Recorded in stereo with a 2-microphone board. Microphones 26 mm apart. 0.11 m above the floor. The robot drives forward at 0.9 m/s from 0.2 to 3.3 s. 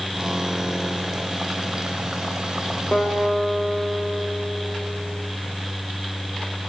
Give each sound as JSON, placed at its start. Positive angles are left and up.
{"t": 2.9, "sound": "a guitar", "side_deg": 50, "distance_m": 7.5}